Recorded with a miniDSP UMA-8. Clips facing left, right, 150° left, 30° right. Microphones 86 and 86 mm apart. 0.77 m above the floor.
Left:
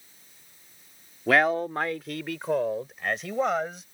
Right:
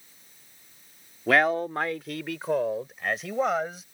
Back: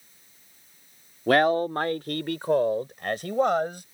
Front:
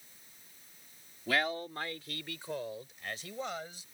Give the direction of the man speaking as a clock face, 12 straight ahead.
6 o'clock.